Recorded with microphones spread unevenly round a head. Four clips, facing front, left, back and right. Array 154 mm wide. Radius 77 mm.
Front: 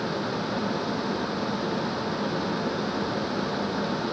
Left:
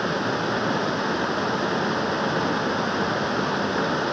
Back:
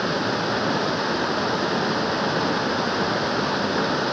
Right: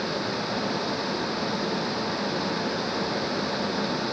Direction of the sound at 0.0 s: 150° left.